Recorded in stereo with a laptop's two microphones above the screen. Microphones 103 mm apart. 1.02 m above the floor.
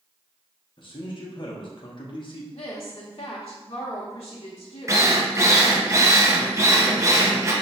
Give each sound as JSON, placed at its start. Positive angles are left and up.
{"t": 0.8, "sound": "a man speaking", "side_deg": 50, "distance_m": 0.9}
{"t": 2.5, "sound": "a woman speaking", "side_deg": 60, "distance_m": 0.9}
{"t": 4.9, "sound": "a drill", "side_deg": -30, "distance_m": 0.8}